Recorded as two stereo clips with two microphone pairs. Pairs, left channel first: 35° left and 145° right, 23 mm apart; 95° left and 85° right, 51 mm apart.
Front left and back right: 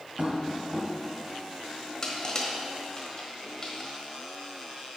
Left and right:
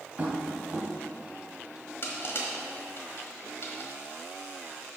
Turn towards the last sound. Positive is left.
turn(degrees=95)